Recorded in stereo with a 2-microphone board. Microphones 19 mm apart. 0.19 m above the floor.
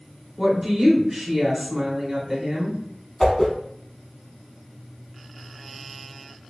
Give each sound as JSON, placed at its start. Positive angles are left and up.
{"t": 0.4, "sound": "a woman speaking", "side_deg": -15, "distance_m": 1.2}
{"t": 3.2, "sound": "a whoosh", "side_deg": 25, "distance_m": 0.6}